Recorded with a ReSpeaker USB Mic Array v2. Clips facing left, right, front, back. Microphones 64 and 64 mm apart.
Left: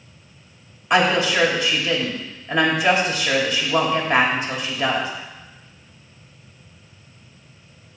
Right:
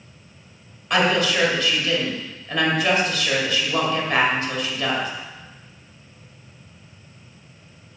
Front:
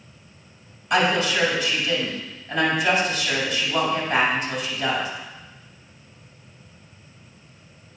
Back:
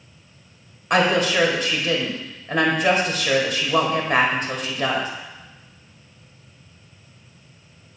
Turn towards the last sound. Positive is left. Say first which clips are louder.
# left 2 dB, back 2 dB
turn(degrees=160)